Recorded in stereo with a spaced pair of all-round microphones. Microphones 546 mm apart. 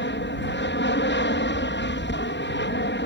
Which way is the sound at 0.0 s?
20° left (ahead or behind).